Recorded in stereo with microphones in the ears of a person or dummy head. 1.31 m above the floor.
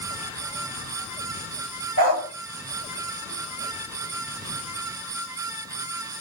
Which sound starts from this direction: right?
A dog barking, at 2.0 s.